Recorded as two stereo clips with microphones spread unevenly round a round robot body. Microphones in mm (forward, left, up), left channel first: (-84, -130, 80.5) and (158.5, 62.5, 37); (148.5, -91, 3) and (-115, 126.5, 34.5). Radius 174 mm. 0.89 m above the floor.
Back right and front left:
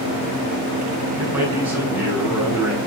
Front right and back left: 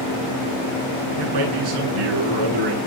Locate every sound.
1.2 s a man speaking: 125° left, 9.5 m